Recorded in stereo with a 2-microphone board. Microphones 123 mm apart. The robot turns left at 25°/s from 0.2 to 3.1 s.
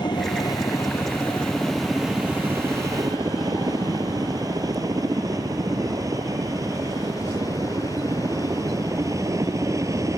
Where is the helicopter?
35° left (ahead or behind); by 10.2 s 25° right (ahead or behind).